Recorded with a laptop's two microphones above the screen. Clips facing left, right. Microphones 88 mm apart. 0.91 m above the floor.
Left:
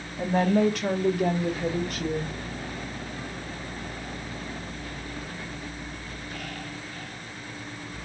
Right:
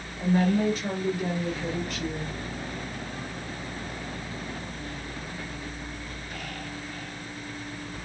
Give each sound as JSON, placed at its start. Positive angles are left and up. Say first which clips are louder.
{"t": 0.2, "sound": "a woman speaking", "louder": "left 2 dB", "side_deg": 75, "distance_m": 1.5}